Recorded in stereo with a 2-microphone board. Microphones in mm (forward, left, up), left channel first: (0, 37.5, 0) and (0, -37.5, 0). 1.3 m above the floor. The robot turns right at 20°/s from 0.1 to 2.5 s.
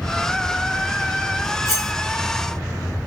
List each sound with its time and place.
1.6 s cutlery clinking: 50° left (ahead or behind), 3 m; by 1.9 s 55° left (ahead or behind), 3 m